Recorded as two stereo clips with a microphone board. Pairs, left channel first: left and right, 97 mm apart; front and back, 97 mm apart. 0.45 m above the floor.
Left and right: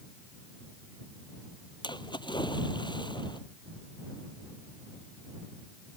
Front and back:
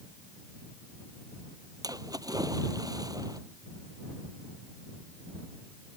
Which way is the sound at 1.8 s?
130° left.